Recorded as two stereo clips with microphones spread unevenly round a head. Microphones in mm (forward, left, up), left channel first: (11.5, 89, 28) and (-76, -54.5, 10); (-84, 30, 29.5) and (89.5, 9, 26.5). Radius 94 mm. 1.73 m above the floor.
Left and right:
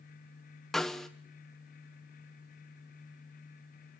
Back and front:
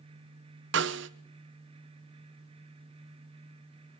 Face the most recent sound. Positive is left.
turn(degrees=-25)